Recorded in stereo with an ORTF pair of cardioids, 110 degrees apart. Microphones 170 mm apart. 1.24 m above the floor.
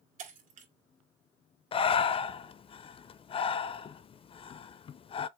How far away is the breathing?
About 0.5 m.